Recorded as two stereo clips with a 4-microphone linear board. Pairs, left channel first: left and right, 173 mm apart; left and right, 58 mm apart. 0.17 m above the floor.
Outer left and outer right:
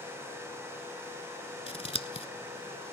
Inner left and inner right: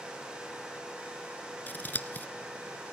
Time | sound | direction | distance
1.7 | scissors | 35° left (ahead or behind) | 0.7 m